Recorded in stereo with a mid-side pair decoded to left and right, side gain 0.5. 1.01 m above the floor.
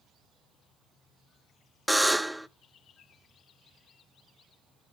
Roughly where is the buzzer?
Ahead.